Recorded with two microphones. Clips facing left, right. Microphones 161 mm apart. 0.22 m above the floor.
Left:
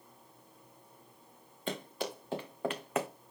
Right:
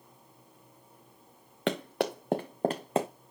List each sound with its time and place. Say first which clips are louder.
1.7 s running footsteps: right 8 dB; 75° right (ahead or behind), 1.5 m; by 3.1 s 25° right (ahead or behind), 1.2 m